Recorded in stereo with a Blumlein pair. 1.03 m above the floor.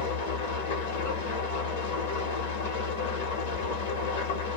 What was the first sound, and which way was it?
An engine running, 50° left.